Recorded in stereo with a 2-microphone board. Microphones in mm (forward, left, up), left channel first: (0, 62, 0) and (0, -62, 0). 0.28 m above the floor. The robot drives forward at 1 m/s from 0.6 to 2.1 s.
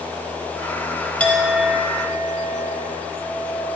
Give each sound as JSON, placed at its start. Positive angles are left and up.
{"t": 1.2, "sound": "a clink", "side_deg": 10, "distance_m": 0.7}